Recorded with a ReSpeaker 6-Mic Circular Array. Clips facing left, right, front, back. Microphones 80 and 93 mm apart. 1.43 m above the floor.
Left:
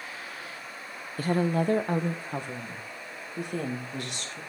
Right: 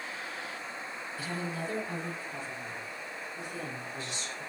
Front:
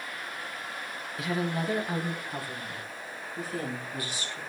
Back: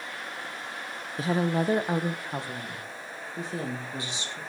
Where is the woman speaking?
125° left, 0.9 m; by 4.4 s 115° left, 3 m.